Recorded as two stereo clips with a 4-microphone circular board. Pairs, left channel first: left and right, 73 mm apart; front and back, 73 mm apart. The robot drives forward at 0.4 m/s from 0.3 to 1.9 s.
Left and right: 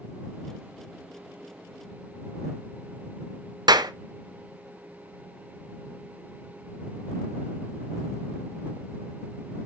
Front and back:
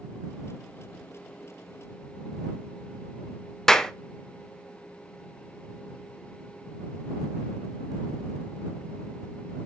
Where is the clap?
85° right, 0.6 m.